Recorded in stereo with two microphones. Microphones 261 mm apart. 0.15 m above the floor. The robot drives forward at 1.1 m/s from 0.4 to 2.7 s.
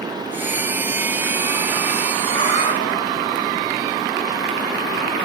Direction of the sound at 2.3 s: 30° left (ahead or behind).